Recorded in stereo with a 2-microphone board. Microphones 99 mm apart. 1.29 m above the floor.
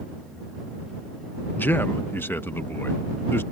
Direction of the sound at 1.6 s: 20° left (ahead or behind).